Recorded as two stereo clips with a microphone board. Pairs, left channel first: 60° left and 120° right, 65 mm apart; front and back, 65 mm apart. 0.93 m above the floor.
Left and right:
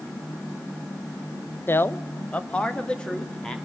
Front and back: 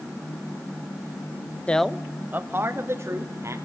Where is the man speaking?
55° left, 0.5 m; by 3.5 s 140° left, 2 m.